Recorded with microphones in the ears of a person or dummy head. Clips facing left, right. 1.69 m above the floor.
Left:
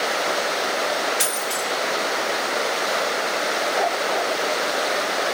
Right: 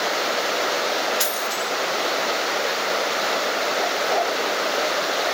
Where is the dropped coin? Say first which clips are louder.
Even; 20° left (ahead or behind), 1.3 m.